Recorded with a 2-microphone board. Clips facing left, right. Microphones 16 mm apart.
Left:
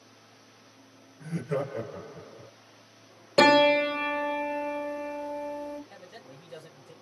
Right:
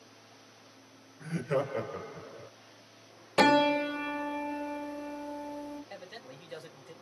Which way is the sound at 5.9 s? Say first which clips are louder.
Right 2 dB; 75° right (ahead or behind).